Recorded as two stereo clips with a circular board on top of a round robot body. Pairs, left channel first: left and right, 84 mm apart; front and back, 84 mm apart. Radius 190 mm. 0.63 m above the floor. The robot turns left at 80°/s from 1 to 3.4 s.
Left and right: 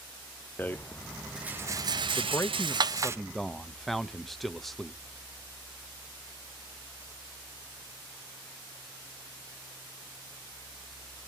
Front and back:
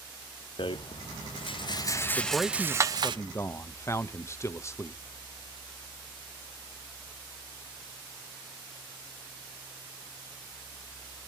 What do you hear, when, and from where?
0.6 s a rattle: 20° left, 0.9 m; by 3.2 s 155° right, 0.9 m
2.2 s a man speaking: 105° left, 1.1 m; by 5.0 s 5° left, 1.1 m